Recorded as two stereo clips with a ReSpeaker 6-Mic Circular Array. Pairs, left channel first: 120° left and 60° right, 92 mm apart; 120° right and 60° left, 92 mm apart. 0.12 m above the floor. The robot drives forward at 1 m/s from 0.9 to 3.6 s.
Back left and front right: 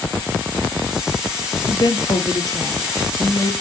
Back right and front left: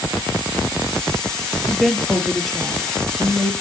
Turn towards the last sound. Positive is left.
turn(degrees=160)